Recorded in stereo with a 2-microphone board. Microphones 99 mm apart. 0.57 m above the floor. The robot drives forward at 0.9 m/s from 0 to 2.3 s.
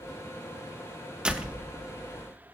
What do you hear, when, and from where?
1.2 s a door slam: 10° right (ahead or behind), 1.0 m